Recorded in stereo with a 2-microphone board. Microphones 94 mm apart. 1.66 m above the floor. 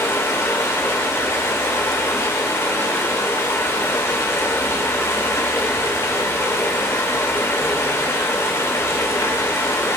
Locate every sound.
0.0 s running water: 30° left (ahead or behind), 3 m